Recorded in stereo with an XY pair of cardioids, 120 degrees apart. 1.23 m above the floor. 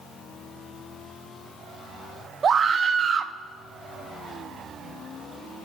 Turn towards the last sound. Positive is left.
turn(degrees=-40)